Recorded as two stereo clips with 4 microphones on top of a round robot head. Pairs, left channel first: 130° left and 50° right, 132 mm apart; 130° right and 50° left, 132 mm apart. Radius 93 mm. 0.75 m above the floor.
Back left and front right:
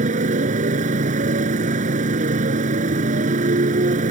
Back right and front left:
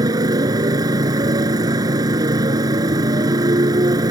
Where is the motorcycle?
15° right.